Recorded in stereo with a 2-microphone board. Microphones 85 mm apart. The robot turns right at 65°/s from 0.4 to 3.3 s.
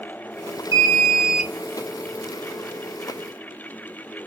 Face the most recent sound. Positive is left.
turn(degrees=100)